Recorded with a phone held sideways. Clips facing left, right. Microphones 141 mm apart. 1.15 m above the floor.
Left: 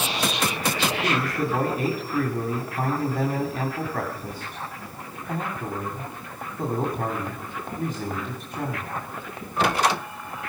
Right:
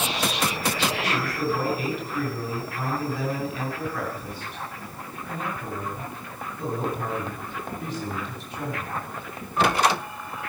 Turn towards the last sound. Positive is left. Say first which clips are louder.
# left 2 dB
turn(degrees=45)  # may be behind; listen again after turning